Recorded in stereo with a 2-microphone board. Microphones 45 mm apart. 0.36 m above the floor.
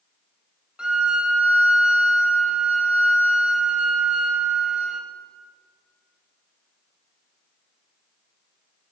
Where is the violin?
15° right (ahead or behind), 0.6 m.